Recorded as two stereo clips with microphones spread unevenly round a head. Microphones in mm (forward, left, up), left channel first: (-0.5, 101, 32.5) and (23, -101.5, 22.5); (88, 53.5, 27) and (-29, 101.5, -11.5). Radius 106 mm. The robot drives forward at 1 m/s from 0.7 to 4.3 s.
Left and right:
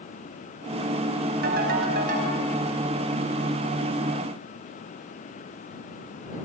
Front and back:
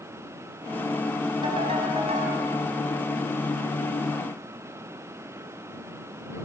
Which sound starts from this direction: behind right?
A ringtone, at 1.4 s.